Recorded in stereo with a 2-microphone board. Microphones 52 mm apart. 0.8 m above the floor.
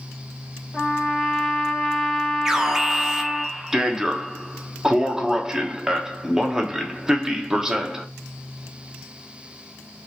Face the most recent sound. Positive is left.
turn(degrees=-10)  # may be behind; listen again after turning